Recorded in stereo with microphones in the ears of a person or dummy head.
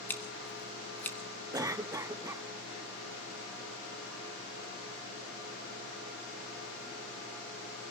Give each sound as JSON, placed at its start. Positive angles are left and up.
{"t": 0.1, "sound": "scissors", "side_deg": 10, "distance_m": 1.4}
{"t": 1.5, "sound": "a cough", "side_deg": -20, "distance_m": 0.8}